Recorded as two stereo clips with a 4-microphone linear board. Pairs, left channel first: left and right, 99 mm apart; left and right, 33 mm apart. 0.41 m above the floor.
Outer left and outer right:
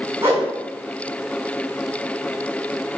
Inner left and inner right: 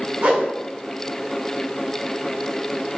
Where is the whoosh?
25° right (ahead or behind), 3.5 m.